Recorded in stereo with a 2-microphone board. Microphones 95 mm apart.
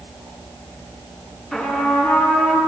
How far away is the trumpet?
About 5 m.